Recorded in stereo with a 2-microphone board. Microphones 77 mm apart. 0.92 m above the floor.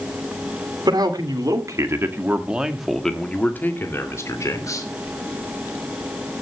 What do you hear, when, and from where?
0.9 s a man speaking: 60° right (ahead or behind), 2.5 m; by 4.9 s 45° left (ahead or behind), 3.5 m